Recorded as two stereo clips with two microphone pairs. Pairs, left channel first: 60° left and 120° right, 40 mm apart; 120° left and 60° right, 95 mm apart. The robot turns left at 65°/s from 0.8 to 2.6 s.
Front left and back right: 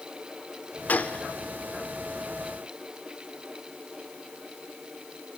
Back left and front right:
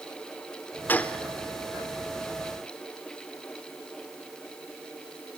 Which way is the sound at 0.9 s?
60° left.